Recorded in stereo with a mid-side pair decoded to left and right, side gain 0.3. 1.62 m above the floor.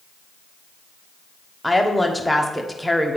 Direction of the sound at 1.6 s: Straight ahead.